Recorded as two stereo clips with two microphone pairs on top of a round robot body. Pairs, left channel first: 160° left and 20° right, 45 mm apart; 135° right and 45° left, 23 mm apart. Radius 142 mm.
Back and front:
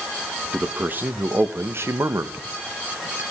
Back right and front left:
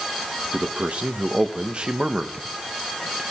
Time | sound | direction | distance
0.5 | a man speaking | 35° left | 1.4 m